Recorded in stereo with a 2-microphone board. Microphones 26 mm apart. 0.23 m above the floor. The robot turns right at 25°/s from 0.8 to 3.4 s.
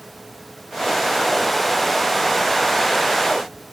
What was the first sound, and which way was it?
Only background noise.